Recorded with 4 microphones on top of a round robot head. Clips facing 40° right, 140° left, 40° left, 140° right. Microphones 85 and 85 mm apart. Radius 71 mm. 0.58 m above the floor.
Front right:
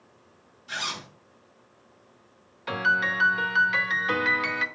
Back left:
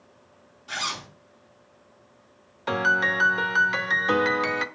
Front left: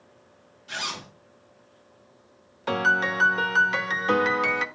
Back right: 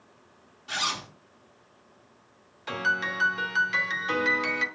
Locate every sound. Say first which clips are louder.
0.7 s a zipper: back left 2 dB, back right 3 dB; 175° left, 4.5 m
2.7 s a piano: back left 2 dB, front left 5 dB; 80° left, 0.7 m